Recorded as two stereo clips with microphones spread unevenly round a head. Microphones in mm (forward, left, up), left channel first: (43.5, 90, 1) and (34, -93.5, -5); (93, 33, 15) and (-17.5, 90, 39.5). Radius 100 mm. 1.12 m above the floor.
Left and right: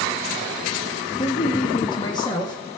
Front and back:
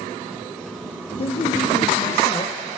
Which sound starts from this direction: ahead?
A man speaking, at 1.2 s.